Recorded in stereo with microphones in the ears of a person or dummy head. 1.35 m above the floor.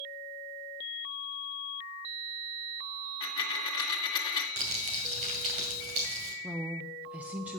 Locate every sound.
3.2 s a dropped coin: 30° left (ahead or behind), 1.9 m
4.6 s crumpling: 40° right (ahead or behind), 2 m
6.4 s a woman speaking: 10° right (ahead or behind), 0.6 m